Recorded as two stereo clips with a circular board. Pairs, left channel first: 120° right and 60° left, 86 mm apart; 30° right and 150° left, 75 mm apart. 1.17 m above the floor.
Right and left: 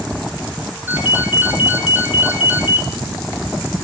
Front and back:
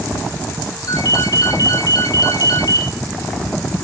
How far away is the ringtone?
About 1.6 m.